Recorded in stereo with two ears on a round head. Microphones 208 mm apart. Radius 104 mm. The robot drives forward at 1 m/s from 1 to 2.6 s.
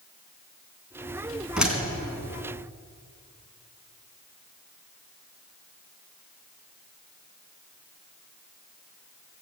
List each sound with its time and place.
1.6 s a door slam: 5° right (ahead or behind), 4 m